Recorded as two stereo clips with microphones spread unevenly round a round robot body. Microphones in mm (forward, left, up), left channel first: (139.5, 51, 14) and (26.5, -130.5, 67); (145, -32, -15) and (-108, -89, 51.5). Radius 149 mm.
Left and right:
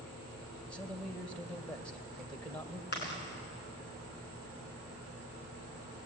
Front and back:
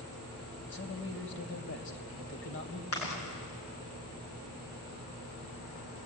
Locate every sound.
0.7 s a man speaking: 20° right, 3 m
2.9 s chewing: 25° left, 8 m